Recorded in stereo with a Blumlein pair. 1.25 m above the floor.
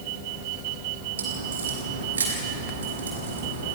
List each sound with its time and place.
1.2 s a crack: 70° right, 6 m